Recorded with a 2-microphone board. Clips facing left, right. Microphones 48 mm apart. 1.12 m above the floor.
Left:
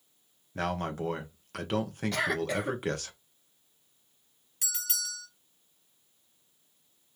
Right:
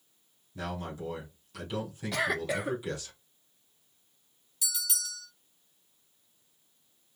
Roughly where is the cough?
Centre.